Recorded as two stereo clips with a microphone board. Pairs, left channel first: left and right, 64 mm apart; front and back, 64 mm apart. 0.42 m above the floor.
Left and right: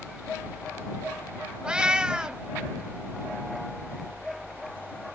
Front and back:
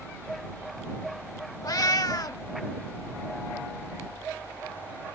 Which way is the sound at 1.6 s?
15° right.